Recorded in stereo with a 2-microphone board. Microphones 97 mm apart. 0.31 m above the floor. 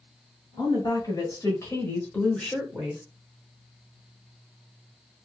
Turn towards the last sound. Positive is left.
turn(degrees=-10)  # may be behind; listen again after turning